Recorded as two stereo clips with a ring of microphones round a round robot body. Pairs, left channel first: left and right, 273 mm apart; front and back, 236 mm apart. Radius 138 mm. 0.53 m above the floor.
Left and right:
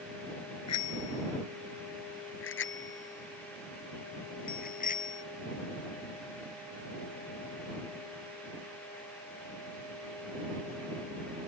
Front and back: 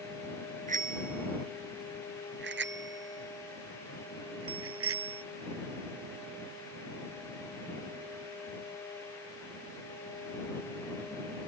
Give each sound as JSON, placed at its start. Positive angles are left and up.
{"t": 0.7, "sound": "a bicycle bell", "azimuth_deg": 125}